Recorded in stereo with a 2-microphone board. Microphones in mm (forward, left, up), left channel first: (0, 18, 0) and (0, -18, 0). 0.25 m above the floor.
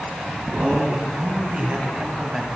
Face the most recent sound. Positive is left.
turn(degrees=-15)  # may be behind; listen again after turning